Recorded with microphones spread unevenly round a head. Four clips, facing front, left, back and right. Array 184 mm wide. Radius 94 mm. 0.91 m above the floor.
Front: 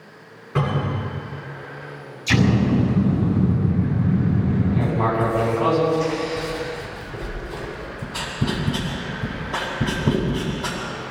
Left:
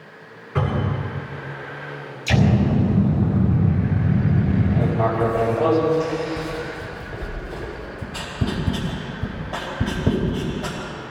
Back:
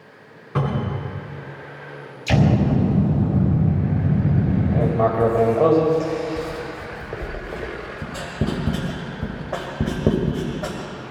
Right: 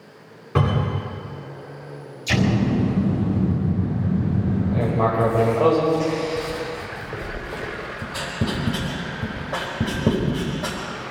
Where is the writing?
170° right, 5.5 m.